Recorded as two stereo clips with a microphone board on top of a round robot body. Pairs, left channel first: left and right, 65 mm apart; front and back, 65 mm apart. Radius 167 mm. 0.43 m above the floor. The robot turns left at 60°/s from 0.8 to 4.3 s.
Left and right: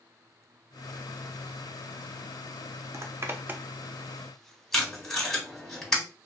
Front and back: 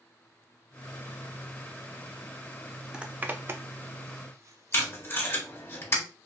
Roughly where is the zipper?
Right.